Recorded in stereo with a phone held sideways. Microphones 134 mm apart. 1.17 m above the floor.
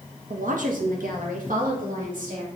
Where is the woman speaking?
75° right (ahead or behind), 1.0 m; by 2.5 s 85° right, 3 m.